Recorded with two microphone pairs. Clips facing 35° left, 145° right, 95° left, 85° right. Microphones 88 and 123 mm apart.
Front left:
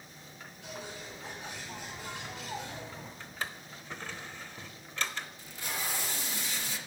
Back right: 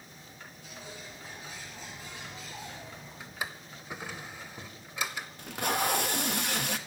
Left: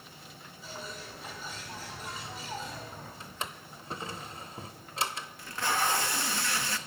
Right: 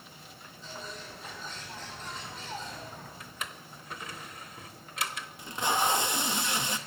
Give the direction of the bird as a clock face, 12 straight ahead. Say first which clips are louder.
Front left 4 dB, even; 11 o'clock.